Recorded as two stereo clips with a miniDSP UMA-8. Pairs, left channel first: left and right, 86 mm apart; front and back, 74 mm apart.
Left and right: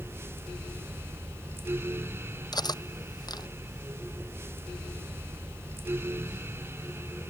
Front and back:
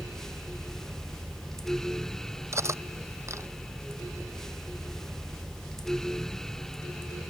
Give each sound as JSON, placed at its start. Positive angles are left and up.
{"t": 2.5, "sound": "cutlery clinking", "azimuth_deg": 130}